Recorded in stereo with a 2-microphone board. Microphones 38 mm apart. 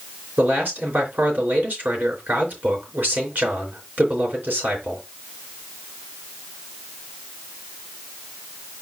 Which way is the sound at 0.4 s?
55° right (ahead or behind).